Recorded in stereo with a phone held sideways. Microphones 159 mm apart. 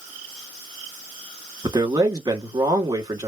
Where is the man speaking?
25° right (ahead or behind), 1.3 m.